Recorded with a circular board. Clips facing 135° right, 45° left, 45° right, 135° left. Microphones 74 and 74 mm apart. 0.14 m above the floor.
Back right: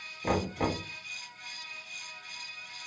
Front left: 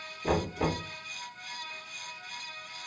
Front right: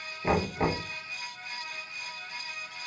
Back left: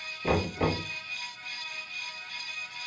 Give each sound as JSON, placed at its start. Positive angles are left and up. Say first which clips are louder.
{"t": 0.2, "sound": "knocking", "louder": "front left 1 dB, even", "azimuth_deg": -90, "distance_m": 1.8}